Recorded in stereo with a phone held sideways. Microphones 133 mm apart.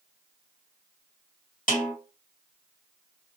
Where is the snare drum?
85° left, 1.6 m.